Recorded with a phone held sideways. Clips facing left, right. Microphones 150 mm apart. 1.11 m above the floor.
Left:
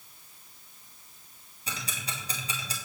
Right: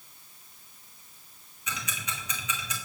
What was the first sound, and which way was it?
Ticking, 30° left (ahead or behind).